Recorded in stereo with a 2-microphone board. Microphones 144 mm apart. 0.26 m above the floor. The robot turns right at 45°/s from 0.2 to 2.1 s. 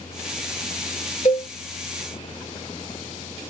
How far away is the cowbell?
About 0.8 m.